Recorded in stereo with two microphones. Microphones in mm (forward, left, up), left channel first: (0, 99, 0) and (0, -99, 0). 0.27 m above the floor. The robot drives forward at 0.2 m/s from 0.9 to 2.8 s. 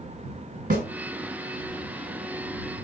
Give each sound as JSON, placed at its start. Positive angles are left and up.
{"t": 0.7, "sound": "a snare drum", "side_deg": -45, "distance_m": 1.7}